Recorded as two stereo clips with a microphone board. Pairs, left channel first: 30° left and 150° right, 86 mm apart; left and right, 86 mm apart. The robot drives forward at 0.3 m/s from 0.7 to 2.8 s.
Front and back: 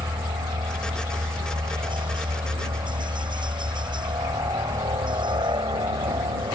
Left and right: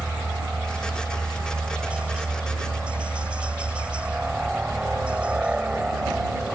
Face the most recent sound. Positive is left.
turn(degrees=-165)